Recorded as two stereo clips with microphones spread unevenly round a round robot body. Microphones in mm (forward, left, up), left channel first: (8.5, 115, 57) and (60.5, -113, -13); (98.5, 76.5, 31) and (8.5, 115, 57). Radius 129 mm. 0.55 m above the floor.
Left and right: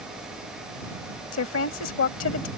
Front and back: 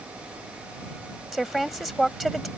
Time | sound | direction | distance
1.3 | a woman speaking | 65° left | ?